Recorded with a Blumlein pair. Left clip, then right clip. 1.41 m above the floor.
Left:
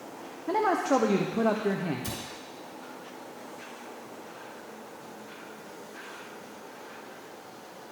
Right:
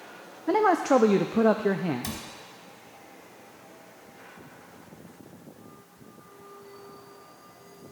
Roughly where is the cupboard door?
Ahead right.